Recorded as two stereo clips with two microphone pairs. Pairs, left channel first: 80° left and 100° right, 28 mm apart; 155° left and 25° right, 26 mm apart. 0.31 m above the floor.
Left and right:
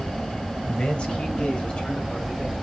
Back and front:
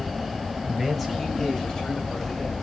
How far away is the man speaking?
About 1.9 m.